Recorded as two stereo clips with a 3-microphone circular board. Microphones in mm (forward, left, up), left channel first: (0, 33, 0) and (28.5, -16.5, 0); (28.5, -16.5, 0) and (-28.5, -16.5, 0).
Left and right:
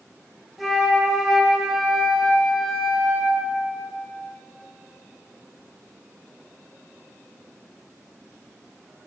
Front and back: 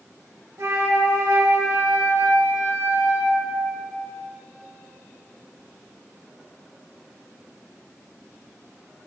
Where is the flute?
155° right, 1.8 m.